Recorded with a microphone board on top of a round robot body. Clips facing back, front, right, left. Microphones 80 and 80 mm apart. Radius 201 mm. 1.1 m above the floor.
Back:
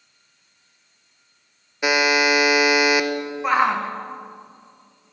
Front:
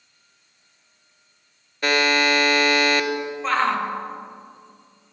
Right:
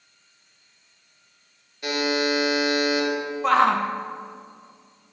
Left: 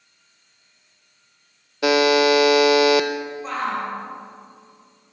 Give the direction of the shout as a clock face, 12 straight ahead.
3 o'clock.